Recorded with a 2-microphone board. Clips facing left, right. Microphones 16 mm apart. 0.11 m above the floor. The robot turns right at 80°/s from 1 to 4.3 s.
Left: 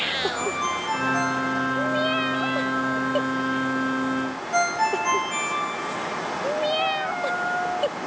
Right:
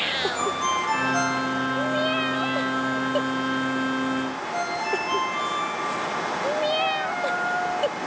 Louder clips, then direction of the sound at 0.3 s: Right 2 dB; 20° right (ahead or behind).